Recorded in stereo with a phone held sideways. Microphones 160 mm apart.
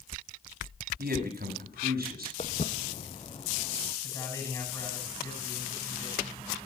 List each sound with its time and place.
1.0 s a man speaking: 70° right (ahead or behind), 6 m
2.4 s footsteps: 45° left (ahead or behind), 1.5 m; by 3.9 s 25° left (ahead or behind), 1.6 m
4.0 s a man speaking: 20° left (ahead or behind), 10 m